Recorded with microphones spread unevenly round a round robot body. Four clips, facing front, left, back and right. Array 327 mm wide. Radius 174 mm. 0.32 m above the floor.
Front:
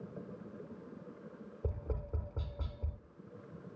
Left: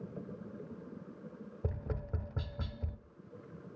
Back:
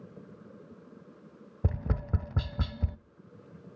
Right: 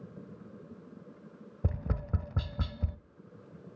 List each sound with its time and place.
1.6 s tapping: 150° right, 0.7 m